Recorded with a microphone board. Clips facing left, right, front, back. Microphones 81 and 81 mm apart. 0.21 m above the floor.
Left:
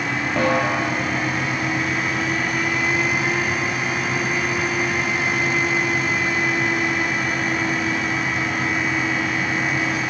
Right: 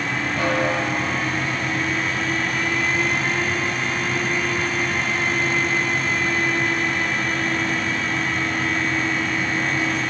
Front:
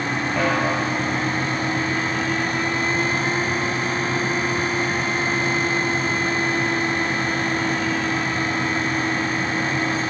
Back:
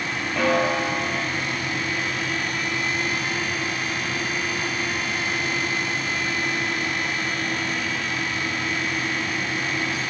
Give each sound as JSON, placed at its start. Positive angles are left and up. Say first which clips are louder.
{"t": 0.4, "sound": "a snare drum", "louder": "left 2 dB, back 2 dB", "azimuth_deg": 80, "distance_m": 5.5}